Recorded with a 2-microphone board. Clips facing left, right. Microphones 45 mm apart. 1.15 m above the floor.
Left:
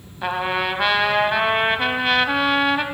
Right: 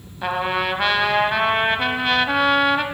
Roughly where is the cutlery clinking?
I don't hear cutlery clinking.